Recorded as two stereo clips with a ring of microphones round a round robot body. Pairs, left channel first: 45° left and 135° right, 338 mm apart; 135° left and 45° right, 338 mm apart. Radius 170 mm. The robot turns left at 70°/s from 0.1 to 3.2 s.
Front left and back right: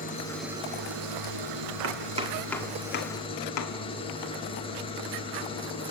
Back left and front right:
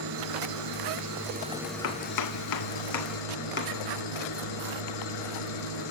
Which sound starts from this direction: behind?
Chopping, at 1.8 s.